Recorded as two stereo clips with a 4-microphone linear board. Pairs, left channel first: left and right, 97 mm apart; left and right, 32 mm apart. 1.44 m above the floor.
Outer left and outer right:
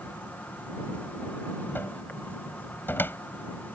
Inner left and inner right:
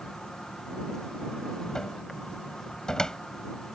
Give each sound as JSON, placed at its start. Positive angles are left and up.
{"t": 0.0, "sound": "an insect", "side_deg": 15}
{"t": 1.8, "sound": "a cupboard door", "side_deg": 20}